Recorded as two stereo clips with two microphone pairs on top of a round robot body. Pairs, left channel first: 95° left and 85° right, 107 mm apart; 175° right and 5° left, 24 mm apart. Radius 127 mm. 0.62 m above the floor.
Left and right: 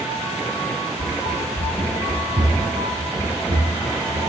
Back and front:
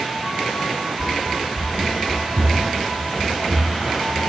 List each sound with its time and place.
1.0 s running footsteps: 90° left, 0.9 m; by 4.2 s 55° right, 2 m